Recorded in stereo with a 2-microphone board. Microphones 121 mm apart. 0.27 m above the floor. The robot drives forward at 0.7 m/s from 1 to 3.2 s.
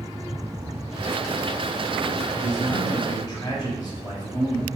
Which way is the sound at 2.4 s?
35° left (ahead or behind).